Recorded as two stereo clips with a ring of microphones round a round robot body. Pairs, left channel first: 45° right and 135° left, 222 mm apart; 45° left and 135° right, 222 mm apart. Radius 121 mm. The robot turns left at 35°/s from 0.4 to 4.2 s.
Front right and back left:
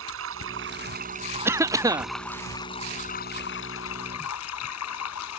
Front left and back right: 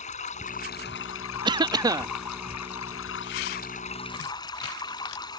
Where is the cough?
165° right; by 2.1 s 175° left.